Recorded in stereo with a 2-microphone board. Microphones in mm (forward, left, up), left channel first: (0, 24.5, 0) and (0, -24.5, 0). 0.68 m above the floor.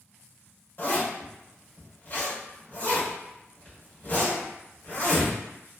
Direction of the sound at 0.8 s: 45° left (ahead or behind).